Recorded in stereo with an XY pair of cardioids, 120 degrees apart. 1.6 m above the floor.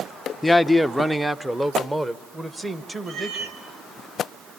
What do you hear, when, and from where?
0.4 s a man speaking: 10° left, 0.6 m; by 3.5 s 20° right, 3 m
3.1 s a cat meowing: 60° right, 3 m